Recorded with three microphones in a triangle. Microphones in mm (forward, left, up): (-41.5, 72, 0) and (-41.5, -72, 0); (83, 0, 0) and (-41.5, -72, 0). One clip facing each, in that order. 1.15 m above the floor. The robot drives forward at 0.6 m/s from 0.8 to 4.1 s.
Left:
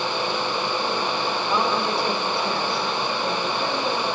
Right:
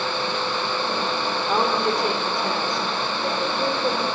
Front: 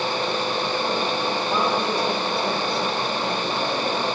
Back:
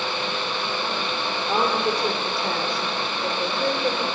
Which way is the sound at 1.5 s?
130° right.